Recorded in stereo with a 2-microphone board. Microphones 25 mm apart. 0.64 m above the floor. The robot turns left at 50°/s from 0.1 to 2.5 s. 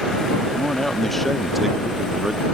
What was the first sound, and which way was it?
A man speaking, 45° left.